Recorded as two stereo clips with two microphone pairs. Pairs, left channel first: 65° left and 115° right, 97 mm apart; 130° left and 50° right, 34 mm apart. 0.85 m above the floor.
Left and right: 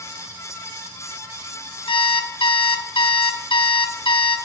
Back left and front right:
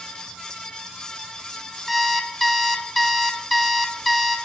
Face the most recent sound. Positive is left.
turn(degrees=45)